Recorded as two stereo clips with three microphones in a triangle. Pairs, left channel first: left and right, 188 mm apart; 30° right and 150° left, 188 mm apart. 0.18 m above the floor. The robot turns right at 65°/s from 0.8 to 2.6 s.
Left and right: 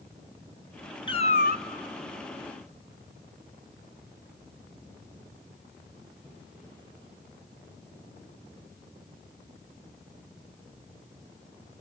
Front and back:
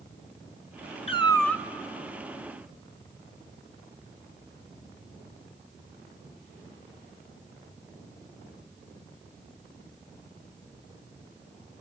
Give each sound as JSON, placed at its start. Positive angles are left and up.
{"t": 1.1, "sound": "a cat meowing", "azimuth_deg": 25, "distance_m": 0.6}